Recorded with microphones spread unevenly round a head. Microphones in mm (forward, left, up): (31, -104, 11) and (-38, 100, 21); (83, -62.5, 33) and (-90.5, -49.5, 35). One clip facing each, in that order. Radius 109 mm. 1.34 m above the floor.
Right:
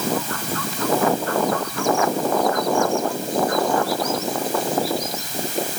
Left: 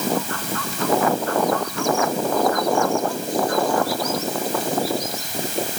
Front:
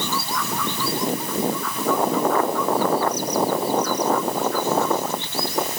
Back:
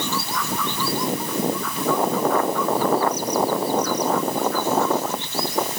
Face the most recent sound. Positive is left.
No sound to turn to.